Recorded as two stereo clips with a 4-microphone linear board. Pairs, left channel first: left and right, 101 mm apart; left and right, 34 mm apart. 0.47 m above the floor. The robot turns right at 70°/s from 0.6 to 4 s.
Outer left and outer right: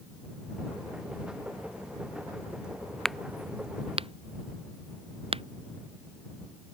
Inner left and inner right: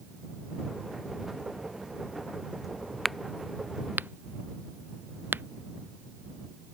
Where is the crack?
5° left (ahead or behind); by 5.4 s 60° right (ahead or behind).